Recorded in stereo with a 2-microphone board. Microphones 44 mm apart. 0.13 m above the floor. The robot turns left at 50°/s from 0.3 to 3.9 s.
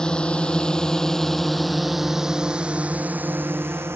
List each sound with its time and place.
0.0 s a drone: 20° left (ahead or behind); by 4.0 s 70° right (ahead or behind)